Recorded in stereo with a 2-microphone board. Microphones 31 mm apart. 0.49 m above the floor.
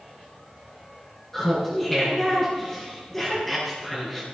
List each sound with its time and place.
1.3 s laughter: 5° left (ahead or behind), 7 m